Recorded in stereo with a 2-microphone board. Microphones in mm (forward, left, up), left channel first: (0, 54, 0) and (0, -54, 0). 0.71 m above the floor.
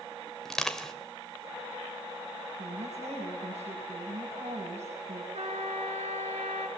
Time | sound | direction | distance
0.5 | crushing | 5° left (ahead or behind) | 2.5 m
2.6 | a woman speaking | 75° right (ahead or behind) | 6.5 m
5.3 | a trumpet | 80° right | 6 m